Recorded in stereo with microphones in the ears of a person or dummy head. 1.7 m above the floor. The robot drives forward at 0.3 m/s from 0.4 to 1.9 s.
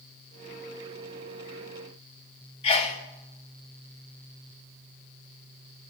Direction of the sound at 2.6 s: 30° left (ahead or behind).